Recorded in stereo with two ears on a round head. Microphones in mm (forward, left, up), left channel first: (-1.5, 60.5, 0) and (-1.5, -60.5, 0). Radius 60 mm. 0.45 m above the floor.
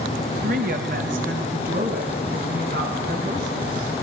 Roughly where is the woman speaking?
Right.